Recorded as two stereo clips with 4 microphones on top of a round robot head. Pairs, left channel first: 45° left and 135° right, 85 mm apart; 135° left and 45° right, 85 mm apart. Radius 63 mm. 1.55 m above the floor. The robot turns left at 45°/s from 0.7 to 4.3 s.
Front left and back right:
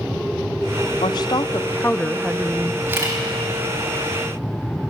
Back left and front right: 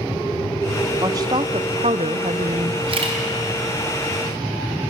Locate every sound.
1.0 s a woman speaking: 10° left, 0.6 m; by 2.8 s 70° right, 0.6 m
2.9 s a camera shutter: 65° right, 3.5 m; by 3.2 s 80° right, 3.5 m